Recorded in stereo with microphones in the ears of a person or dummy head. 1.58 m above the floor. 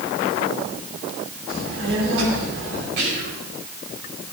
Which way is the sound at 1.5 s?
80° right.